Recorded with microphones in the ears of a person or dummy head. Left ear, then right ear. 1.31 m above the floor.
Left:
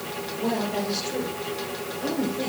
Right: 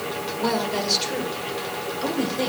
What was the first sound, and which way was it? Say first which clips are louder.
A woman speaking: right 3 dB; 60° right (ahead or behind).